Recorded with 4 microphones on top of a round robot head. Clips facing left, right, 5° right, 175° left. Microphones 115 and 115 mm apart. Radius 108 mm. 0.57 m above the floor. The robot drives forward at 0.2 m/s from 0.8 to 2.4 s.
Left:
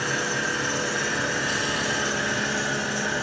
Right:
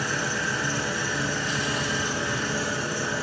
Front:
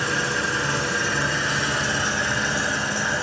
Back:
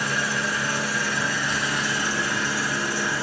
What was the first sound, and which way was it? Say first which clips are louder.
An engine running: left 1 dB, front 1 dB; 60° left.